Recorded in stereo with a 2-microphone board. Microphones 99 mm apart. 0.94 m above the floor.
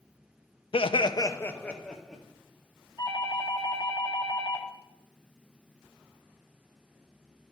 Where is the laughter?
65° left (ahead or behind), 0.5 m; by 2.2 s 5° left (ahead or behind), 1.3 m.